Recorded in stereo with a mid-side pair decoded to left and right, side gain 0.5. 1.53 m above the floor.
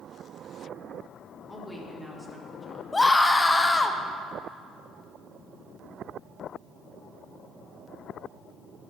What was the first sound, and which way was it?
A woman speaking, 5° left.